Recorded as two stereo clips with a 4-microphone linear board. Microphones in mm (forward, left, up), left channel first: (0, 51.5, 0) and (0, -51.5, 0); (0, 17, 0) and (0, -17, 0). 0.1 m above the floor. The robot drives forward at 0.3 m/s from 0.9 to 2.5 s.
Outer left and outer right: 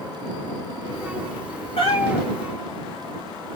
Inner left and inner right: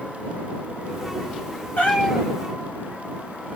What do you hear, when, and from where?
1.8 s a cat meowing: 55° left (ahead or behind), 1.6 m; by 2.3 s 50° left (ahead or behind), 1.7 m